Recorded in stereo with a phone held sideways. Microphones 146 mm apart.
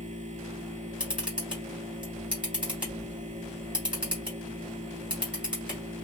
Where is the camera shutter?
10° right (ahead or behind), 1.7 m.